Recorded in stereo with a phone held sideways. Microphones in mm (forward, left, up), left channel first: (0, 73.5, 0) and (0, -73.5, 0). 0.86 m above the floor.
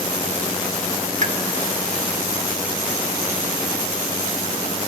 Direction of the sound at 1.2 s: 55° right (ahead or behind).